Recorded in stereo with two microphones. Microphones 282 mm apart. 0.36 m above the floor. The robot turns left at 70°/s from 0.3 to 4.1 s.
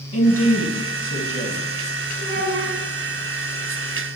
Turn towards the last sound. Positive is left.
turn(degrees=-155)